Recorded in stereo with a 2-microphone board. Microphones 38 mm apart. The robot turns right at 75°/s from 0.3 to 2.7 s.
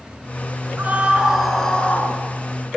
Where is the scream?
55° right, 5.5 m; by 2.1 s 45° left, 5.5 m.